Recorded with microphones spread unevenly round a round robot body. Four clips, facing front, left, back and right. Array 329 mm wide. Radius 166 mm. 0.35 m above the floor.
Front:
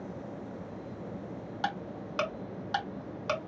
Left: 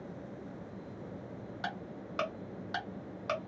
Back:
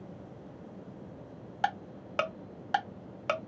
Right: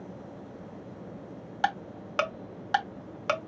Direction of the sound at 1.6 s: 135° right.